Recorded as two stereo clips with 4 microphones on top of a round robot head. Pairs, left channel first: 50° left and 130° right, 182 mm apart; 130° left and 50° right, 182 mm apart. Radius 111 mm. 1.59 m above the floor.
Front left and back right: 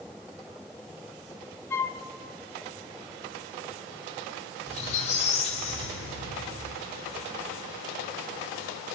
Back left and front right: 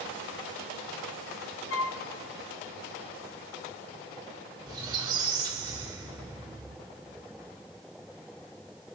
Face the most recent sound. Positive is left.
turn(degrees=10)